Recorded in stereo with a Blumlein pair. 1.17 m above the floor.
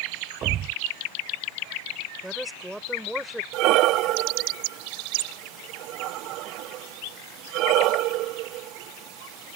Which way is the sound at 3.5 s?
40° right.